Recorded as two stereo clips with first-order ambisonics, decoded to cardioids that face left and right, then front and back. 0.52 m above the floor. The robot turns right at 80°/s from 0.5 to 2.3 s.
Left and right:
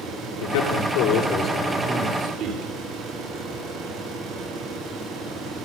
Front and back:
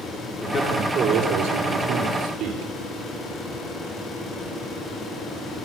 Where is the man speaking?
85° left, 9.5 m; by 2.7 s 130° right, 9.5 m.